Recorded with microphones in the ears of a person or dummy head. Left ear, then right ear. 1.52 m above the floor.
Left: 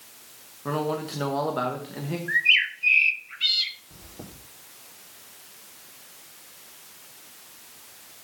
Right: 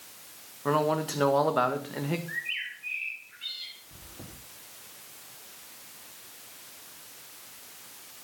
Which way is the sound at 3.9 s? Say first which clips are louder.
Left 3 dB; 80° left.